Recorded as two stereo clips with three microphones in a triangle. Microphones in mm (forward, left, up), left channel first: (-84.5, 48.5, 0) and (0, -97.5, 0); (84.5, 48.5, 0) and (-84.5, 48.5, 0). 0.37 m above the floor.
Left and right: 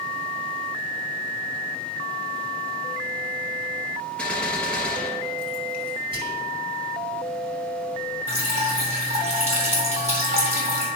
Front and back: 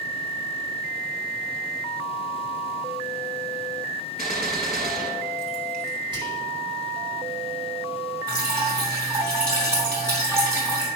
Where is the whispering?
120° right, 3 m.